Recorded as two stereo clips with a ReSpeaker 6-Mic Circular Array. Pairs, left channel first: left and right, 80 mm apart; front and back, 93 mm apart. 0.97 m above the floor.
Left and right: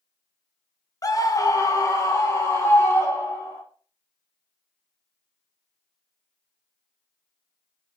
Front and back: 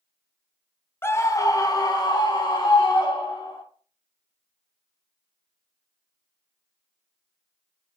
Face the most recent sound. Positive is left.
turn(degrees=35)